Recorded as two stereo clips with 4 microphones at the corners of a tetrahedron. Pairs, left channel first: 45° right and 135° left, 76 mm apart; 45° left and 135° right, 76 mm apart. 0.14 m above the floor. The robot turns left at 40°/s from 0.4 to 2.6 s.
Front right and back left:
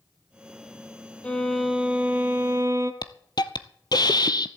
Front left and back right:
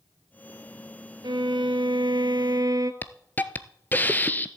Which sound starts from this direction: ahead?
A hiss, at 3.0 s.